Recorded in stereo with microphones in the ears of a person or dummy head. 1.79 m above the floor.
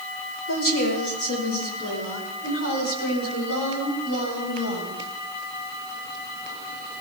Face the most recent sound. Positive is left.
turn(degrees=90)